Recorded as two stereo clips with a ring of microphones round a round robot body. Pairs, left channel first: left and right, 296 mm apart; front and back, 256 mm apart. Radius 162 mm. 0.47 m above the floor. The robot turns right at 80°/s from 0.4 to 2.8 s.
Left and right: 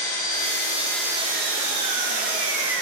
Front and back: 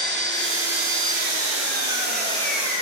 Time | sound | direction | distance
0.0 | an engine running | 130° left | 8 m